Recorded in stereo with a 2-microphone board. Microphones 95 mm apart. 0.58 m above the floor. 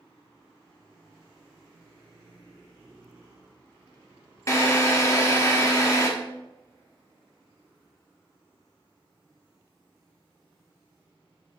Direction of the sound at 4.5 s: 30° left (ahead or behind).